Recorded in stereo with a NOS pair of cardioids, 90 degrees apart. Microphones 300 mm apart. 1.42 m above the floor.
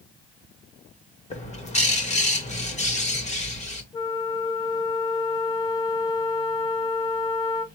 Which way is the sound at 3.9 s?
15° left.